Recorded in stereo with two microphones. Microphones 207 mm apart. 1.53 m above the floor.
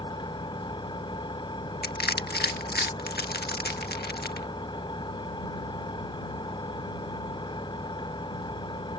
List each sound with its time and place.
0.0 s an engine running: 20° left (ahead or behind)
1.8 s crushing: 50° left (ahead or behind)